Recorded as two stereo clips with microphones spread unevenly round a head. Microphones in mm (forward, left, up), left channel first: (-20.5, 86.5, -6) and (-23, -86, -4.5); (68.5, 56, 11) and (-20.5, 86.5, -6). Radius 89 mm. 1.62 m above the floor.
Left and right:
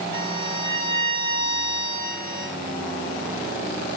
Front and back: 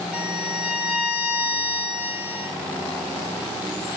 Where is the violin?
80° left, 9 m.